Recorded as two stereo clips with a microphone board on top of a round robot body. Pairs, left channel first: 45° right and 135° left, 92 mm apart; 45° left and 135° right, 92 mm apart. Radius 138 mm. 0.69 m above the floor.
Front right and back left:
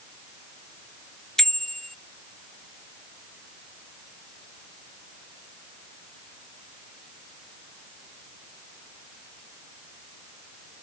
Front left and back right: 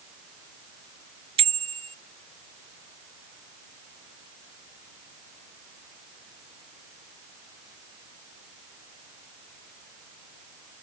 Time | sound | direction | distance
1.4 | a bicycle bell | 130° right | ?